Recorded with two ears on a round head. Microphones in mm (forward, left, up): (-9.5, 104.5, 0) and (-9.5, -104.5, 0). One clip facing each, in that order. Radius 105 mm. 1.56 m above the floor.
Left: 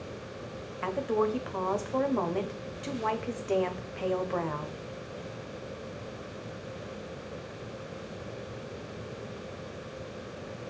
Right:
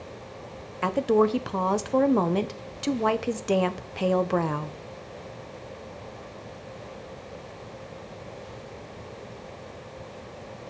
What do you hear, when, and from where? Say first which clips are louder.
0.8 s a woman speaking: right 7 dB; 55° right (ahead or behind), 1.2 m